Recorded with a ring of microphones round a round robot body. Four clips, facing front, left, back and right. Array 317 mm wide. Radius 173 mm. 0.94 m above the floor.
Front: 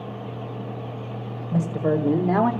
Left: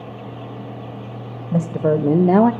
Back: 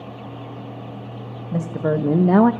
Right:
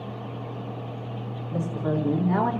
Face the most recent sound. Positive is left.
turn(degrees=130)